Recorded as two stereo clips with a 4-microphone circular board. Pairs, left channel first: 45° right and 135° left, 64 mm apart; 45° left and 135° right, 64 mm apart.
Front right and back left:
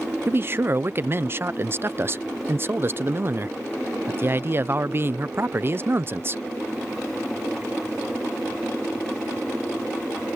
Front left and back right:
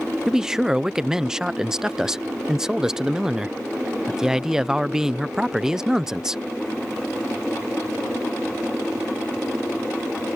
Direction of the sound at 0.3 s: 150° left.